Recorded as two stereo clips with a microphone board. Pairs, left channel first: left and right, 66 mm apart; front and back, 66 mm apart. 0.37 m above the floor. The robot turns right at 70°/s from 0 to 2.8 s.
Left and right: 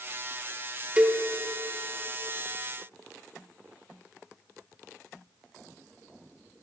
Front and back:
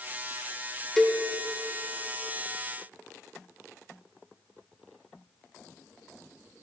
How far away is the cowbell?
About 0.6 m.